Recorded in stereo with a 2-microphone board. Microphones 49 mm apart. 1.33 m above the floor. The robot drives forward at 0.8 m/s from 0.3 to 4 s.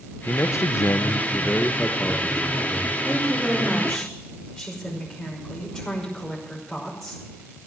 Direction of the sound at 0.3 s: 50° left (ahead or behind).